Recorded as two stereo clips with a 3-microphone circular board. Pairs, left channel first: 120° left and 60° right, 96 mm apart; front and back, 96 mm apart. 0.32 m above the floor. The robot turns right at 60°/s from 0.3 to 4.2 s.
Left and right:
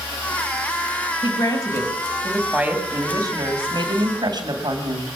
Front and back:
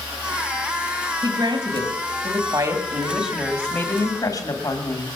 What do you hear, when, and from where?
1.2 s a woman speaking: 140° left, 2.5 m; by 5.0 s 40° right, 2.5 m